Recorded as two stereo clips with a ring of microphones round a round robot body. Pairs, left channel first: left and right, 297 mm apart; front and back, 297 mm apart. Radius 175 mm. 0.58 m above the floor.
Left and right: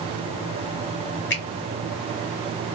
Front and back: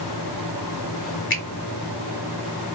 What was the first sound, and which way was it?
A finger snap, 45° left.